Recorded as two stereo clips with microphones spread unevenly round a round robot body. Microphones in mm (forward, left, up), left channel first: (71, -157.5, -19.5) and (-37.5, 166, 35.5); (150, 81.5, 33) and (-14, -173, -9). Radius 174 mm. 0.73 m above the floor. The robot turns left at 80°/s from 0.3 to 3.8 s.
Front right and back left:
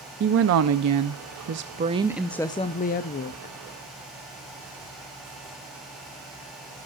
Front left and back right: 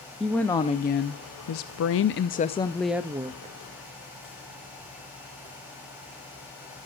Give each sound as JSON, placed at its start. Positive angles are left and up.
{"t": 0.2, "sound": "a woman speaking", "azimuth_deg": 160, "distance_m": 0.5}